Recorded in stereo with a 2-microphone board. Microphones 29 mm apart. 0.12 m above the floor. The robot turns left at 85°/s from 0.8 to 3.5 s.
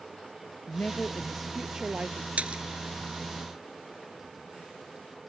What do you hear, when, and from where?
0.7 s a woman speaking: 55° left; by 2.3 s 70° right
2.4 s a splash: 45° right (ahead or behind); by 2.6 s 40° right (ahead or behind)